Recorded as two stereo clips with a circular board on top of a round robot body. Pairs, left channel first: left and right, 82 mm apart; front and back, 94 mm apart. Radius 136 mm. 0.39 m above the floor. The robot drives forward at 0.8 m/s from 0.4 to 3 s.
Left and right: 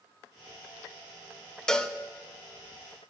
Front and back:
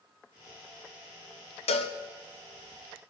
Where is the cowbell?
10° left, 0.7 m; by 2.0 s 15° left, 0.5 m.